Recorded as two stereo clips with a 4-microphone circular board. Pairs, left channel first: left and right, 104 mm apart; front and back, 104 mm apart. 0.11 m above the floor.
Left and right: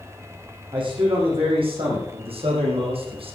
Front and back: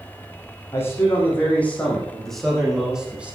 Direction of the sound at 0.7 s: 65° right.